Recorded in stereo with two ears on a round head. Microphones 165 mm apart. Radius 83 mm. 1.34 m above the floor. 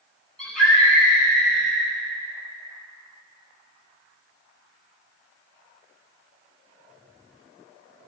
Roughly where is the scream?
Centre.